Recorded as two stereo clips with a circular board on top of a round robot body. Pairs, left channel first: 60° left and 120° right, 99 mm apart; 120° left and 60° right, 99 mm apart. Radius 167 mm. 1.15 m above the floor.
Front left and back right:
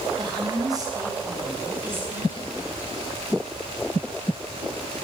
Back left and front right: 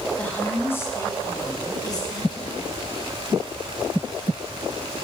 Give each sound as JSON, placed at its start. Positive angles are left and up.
{"t": 0.2, "sound": "a woman speaking", "azimuth_deg": -160, "distance_m": 3.0}